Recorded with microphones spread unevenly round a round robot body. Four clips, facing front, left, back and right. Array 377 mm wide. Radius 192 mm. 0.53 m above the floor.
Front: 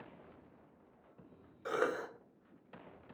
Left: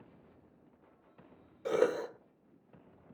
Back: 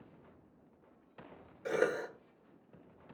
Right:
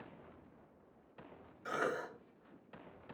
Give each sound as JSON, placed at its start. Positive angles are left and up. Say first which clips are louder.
{"t": 1.6, "sound": "a cough", "louder": "left 8 dB, back 3 dB", "azimuth_deg": 110, "distance_m": 1.6}